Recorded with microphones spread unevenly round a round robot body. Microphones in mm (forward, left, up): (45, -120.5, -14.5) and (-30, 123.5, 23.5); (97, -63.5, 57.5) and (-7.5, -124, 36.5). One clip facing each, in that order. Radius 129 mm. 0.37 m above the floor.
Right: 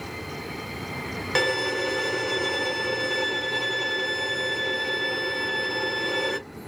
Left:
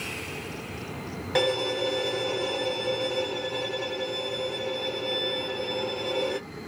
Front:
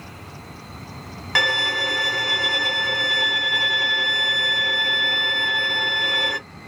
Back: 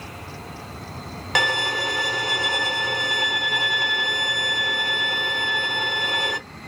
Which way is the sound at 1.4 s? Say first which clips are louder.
Left 1 dB, back 1 dB; 115° right.